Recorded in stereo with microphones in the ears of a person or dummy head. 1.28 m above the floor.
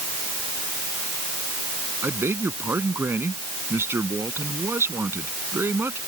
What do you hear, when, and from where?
2.0 s a man speaking: 10° right (ahead or behind)